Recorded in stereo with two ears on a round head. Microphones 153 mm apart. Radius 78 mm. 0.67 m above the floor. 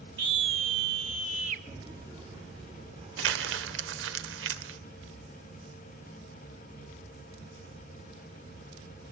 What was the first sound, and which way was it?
A scream, 25° right (ahead or behind).